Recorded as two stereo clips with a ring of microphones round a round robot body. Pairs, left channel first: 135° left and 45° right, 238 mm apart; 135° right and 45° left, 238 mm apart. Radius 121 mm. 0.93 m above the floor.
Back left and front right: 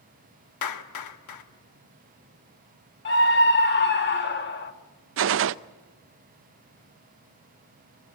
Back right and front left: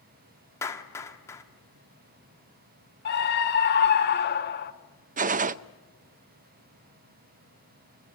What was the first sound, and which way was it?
A clap, 145° left.